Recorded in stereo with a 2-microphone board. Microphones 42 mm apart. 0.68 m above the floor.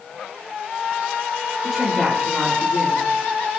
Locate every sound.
1.6 s a man speaking: centre (ahead or behind), 3 m